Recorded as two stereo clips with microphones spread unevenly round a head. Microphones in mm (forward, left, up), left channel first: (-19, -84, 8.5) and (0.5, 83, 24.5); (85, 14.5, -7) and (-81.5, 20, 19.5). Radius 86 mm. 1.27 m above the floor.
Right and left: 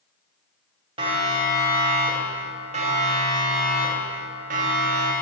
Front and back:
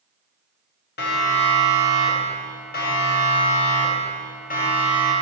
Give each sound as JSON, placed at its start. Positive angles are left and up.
{"t": 1.0, "sound": "a siren", "azimuth_deg": 20, "distance_m": 5.5}